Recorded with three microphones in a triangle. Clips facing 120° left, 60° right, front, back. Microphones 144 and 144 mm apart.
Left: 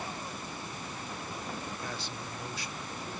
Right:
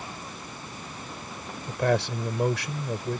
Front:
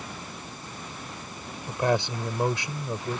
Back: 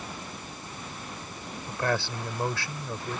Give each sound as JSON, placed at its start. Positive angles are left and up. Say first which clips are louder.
{"t": 1.7, "sound": "a man speaking", "louder": "right 14 dB, front 4 dB", "azimuth_deg": -70}